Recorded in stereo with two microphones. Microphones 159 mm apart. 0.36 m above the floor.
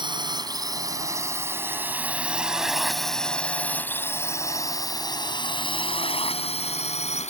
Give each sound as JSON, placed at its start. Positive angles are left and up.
{"t": 0.0, "sound": "a drone", "side_deg": -30}